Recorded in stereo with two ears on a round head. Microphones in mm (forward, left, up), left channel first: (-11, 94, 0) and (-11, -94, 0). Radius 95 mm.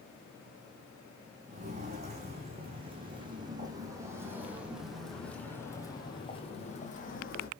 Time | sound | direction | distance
1.5 | footsteps | 35° right (ahead or behind) | 5 m